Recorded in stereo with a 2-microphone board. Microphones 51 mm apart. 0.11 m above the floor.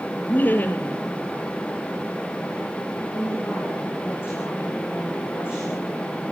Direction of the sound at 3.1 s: 45° left (ahead or behind).